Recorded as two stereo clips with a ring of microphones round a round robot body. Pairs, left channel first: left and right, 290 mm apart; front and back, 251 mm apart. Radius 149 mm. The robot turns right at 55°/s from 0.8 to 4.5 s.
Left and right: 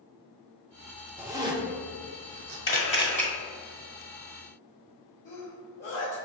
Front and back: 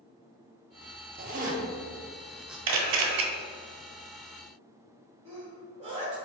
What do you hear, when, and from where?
1.2 s a zipper: 170° right, 0.6 m; by 2.6 s 95° right, 0.6 m
2.7 s a camera shutter: 145° left, 0.9 m; by 3.2 s 175° left, 0.9 m
5.2 s a sneeze: 125° left, 1.3 m